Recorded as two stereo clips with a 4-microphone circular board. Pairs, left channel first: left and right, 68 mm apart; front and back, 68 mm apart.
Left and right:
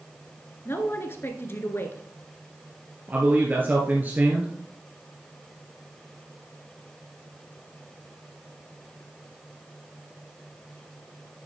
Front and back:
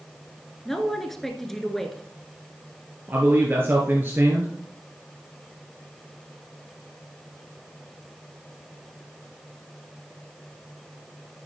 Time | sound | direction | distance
0.7 | a man speaking | 85° left | 1.5 m
3.1 | a man speaking | 140° right | 1.7 m